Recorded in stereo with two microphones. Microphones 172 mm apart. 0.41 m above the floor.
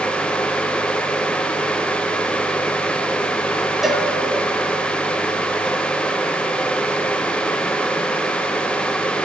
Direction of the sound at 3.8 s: Centre (ahead or behind).